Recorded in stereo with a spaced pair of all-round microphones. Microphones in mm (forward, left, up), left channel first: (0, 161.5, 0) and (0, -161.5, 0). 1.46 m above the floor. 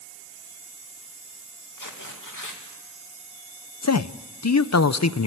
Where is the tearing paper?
70° left (ahead or behind), 2.5 m.